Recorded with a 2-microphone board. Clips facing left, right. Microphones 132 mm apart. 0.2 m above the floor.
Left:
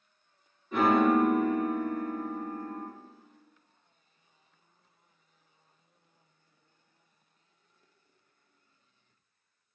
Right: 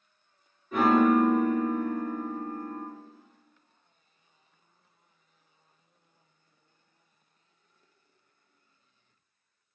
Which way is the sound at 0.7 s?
Centre (ahead or behind).